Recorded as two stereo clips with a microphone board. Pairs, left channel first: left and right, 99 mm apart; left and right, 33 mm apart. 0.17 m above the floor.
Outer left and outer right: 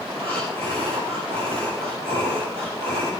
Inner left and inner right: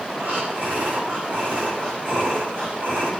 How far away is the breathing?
About 9 m.